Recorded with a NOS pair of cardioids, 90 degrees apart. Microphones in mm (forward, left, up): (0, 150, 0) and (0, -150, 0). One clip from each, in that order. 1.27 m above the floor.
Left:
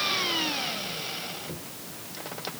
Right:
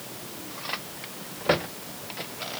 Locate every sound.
Only background noise.